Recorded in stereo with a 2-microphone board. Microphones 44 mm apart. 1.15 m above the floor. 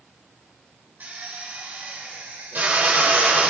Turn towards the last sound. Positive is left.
turn(degrees=-50)  # may be behind; listen again after turning